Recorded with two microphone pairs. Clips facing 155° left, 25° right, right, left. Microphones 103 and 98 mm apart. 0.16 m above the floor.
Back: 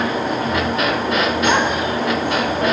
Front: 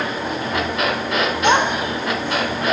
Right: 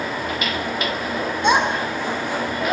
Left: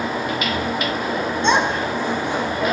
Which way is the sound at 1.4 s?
25° right.